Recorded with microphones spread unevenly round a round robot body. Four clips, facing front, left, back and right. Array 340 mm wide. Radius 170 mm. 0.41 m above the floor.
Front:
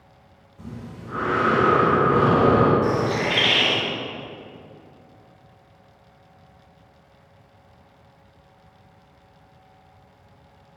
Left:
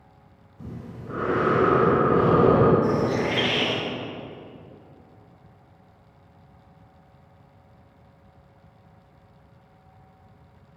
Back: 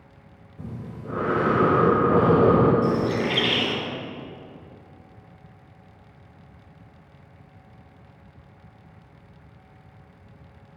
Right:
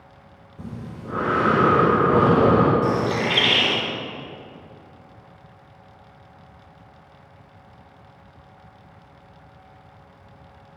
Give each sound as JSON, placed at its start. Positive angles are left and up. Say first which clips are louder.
{"t": 0.6, "sound": "breathing", "louder": "right 3 dB, back 1 dB", "azimuth_deg": -115, "distance_m": 5.0}
{"t": 2.8, "sound": "a bird", "louder": "right 1 dB, front 1 dB", "azimuth_deg": -135, "distance_m": 3.5}